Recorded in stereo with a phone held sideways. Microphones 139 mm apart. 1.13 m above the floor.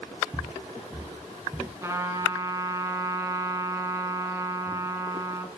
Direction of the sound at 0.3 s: 15° right (ahead or behind).